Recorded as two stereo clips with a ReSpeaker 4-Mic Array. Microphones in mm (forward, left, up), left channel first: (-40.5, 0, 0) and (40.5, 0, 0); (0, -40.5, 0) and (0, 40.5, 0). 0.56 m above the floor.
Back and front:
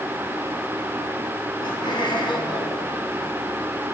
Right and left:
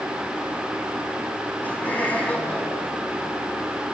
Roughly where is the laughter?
Behind.